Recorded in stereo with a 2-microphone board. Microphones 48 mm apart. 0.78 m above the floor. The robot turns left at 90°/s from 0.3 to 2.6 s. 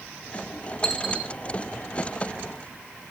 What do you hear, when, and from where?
0.8 s a dropped coin: 15° left (ahead or behind), 3 m; by 1.3 s 30° right (ahead or behind), 3 m